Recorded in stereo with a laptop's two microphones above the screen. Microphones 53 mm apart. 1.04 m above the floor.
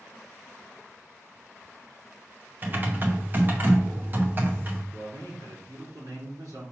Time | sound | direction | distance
2.6 | typing on a keyboard | 35° right (ahead or behind) | 0.9 m
4.9 | a man speaking | 80° right | 3.5 m